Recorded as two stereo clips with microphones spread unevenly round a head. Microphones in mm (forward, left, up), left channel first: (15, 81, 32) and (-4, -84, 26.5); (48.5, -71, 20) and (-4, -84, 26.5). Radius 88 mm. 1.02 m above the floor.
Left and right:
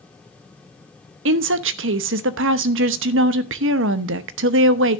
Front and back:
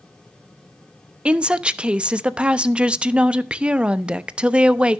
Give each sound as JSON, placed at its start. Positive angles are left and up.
{"t": 1.2, "sound": "a woman speaking", "azimuth_deg": -95, "distance_m": 1.0}